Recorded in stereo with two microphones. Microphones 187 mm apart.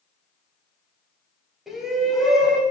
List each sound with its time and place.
1.7 s a shout: centre (ahead or behind), 2.5 m